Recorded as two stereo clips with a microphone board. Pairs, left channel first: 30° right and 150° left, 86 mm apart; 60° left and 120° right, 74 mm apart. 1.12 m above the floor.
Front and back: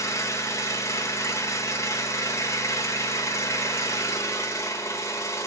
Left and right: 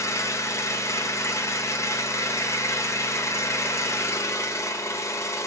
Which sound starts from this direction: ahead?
An engine running, at 0.0 s.